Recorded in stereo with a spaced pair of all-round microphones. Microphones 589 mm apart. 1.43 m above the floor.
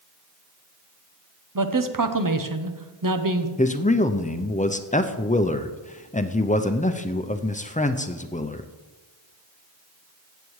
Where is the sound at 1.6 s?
35° right (ahead or behind), 0.8 m.